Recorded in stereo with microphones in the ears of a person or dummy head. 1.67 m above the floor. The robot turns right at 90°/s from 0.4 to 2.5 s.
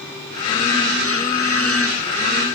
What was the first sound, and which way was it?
Only background noise.